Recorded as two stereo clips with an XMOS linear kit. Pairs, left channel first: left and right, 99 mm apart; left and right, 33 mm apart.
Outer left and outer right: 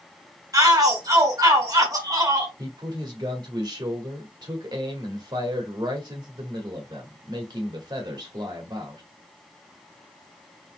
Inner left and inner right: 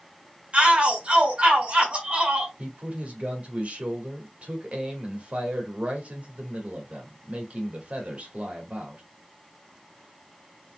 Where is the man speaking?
50° right (ahead or behind), 1.6 m.